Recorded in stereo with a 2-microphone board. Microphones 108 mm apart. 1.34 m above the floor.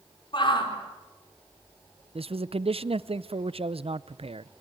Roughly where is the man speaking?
Right.